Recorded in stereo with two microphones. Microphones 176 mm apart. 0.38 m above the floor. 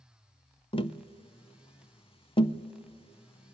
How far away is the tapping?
About 0.5 m.